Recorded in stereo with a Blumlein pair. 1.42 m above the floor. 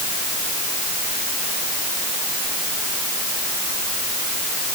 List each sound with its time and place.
Only background noise.